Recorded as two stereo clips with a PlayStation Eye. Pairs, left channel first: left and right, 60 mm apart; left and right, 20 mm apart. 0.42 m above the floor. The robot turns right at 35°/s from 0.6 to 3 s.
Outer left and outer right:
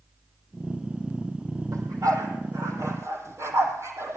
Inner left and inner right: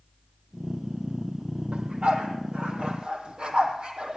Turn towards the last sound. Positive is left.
turn(degrees=-50)  # may be behind; listen again after turning